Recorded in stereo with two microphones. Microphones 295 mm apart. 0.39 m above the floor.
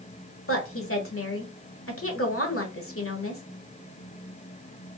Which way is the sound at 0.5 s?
45° left (ahead or behind).